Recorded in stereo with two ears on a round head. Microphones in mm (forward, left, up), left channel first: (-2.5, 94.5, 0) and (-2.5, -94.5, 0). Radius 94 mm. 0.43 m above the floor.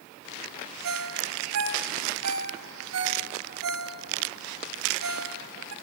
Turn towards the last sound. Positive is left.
turn(degrees=-70)  # may be behind; listen again after turning